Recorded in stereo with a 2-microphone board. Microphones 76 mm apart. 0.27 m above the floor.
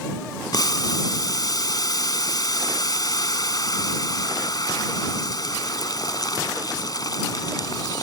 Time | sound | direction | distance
0.5 | boiling | 60° left (ahead or behind) | ?